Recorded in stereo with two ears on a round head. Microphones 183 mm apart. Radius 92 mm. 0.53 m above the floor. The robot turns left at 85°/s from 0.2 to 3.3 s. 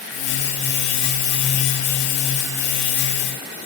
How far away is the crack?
I don't hear a crack.